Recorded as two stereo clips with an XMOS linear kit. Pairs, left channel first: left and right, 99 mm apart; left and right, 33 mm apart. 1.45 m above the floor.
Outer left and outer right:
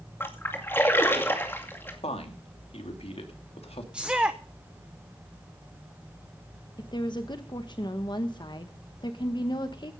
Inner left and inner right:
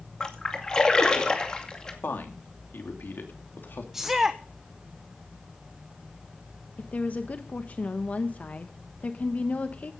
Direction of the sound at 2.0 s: 80° left.